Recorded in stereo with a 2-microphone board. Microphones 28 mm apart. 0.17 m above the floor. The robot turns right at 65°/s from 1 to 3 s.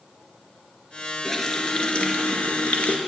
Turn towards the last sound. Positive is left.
turn(degrees=120)